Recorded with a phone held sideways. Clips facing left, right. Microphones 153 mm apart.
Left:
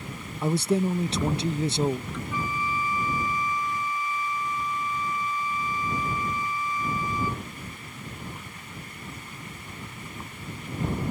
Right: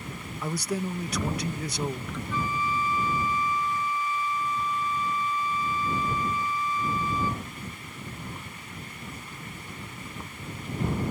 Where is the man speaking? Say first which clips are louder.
Left 7 dB; 25° left (ahead or behind).